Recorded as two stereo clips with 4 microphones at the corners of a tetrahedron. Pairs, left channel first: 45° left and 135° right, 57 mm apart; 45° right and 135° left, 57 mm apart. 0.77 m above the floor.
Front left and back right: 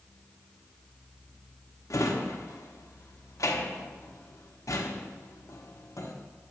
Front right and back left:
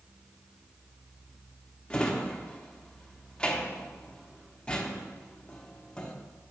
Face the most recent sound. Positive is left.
turn(degrees=25)